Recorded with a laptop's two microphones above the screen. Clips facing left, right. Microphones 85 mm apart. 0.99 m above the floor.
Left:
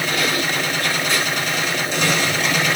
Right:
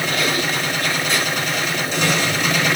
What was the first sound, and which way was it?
Only background noise.